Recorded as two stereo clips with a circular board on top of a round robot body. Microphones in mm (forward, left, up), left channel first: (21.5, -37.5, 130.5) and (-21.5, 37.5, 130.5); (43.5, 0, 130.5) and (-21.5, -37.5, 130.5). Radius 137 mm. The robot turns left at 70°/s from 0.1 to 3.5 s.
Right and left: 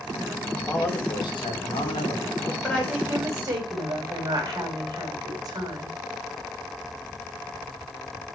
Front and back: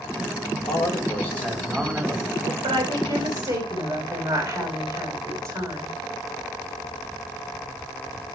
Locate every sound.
0.6 s a man speaking: 15° left, 4.5 m; by 2.5 s 120° right, 4.5 m
2.6 s a woman speaking: 135° right, 4.5 m; by 6.0 s 165° left, 4.5 m